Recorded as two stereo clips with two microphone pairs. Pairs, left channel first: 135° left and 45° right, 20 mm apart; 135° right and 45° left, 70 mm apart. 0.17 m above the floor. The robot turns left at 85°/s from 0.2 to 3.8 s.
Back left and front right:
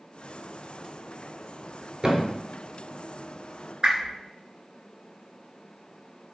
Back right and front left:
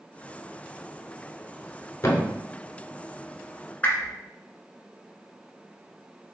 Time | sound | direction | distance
2.0 | a thud | 95° right | 0.6 m
3.8 | a whoosh | 75° right | 0.7 m